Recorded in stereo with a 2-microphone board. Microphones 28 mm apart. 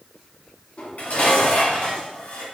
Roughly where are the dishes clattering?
Left.